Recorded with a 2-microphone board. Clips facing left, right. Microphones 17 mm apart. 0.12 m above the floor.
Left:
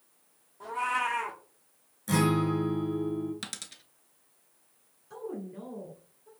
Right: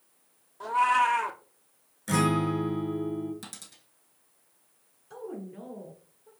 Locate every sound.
0.6 s a cat meowing: 25° right (ahead or behind), 1.0 m
2.1 s a guitar: 25° right (ahead or behind), 2.5 m
3.4 s a dropped coin: 40° left (ahead or behind), 0.8 m
5.1 s a woman speaking: 10° right (ahead or behind), 1.7 m